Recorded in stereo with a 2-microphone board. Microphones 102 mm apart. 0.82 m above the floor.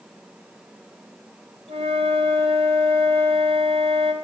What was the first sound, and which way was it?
A flute, 70° right (ahead or behind).